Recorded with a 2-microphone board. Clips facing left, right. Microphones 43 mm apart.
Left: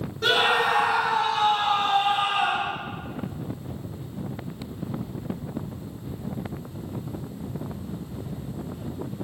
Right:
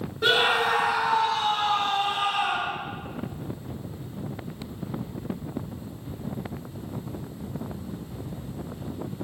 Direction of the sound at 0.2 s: 15° right (ahead or behind).